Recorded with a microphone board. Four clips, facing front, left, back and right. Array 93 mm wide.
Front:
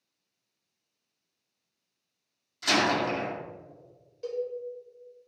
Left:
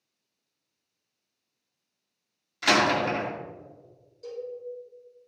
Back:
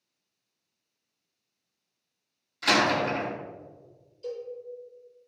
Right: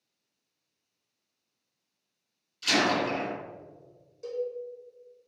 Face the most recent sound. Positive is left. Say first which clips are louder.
# right 4 dB, front 4 dB
turn(degrees=-15)